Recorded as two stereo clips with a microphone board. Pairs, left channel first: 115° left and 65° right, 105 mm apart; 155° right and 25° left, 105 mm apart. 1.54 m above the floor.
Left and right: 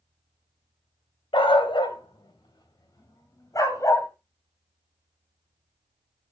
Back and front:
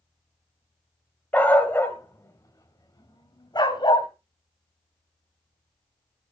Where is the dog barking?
130° left, 2 m; by 4.1 s 170° left, 2.5 m.